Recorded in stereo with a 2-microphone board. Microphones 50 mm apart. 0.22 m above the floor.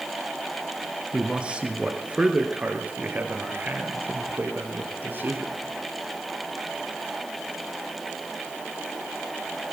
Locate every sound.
1.1 s a man speaking: 25° right (ahead or behind), 2.5 m; by 5.5 s 45° right (ahead or behind), 4.5 m